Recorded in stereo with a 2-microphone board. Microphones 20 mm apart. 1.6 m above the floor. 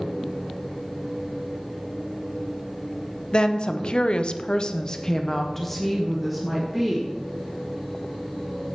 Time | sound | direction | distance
3.3 | a woman speaking | 40° left (ahead or behind) | 0.8 m